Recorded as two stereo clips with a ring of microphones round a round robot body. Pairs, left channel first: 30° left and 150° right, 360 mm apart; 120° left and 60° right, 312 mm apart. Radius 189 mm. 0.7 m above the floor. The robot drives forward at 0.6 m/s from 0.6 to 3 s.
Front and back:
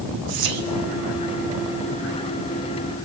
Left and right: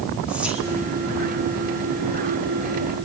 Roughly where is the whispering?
Behind right.